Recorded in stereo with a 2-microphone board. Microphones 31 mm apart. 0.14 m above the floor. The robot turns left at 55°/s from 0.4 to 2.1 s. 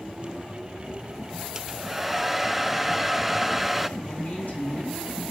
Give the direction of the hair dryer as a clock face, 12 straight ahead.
5 o'clock.